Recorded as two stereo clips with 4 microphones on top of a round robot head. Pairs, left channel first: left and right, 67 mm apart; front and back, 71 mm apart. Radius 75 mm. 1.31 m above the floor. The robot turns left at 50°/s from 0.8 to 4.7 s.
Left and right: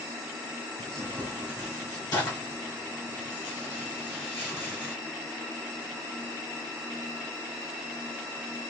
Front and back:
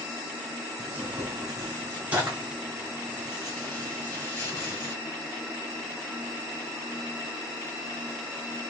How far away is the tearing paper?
About 2 m.